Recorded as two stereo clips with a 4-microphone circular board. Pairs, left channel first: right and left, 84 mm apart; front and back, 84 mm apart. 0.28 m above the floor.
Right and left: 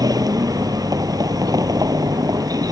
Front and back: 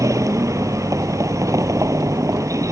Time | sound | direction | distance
0.0 | a vehicle | 130° left | ?